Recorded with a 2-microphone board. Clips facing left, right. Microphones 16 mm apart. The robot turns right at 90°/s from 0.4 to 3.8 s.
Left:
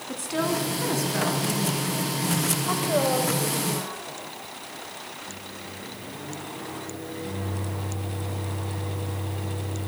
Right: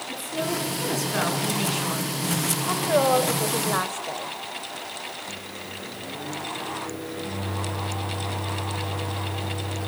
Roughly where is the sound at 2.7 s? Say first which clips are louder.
Right 4 dB; behind.